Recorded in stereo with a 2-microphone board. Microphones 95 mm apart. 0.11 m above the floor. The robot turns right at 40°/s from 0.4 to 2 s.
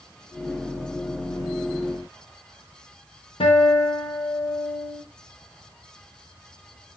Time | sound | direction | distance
3.4 | a guitar | 70° left (ahead or behind) | 6 m